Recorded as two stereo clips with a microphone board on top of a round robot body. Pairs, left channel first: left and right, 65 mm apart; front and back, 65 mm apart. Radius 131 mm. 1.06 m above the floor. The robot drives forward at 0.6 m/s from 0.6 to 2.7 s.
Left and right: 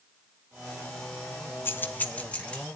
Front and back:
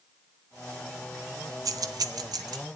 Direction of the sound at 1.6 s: 150° left.